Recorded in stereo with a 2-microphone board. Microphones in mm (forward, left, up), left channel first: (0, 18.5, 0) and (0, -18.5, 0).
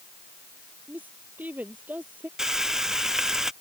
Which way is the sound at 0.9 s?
60° right (ahead or behind).